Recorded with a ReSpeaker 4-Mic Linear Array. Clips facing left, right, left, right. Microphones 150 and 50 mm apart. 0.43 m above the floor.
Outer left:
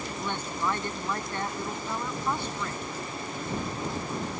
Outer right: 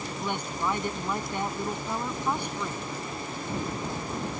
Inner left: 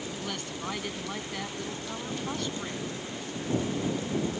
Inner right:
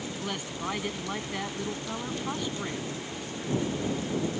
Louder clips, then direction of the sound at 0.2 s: Outer right 1 dB, inner right 3 dB; 15° right (ahead or behind).